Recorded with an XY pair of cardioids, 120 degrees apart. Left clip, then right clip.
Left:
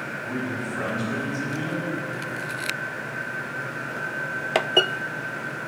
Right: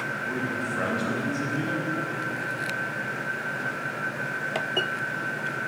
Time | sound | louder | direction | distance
0.2 | a man speaking | right 1 dB | 5° right | 2.5 m